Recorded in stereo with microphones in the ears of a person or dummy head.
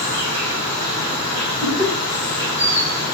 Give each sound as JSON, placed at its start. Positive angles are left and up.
{"t": 0.0, "sound": "an insect", "side_deg": -25, "distance_m": 1.9}
{"t": 1.6, "sound": "laughter", "side_deg": 20, "distance_m": 1.3}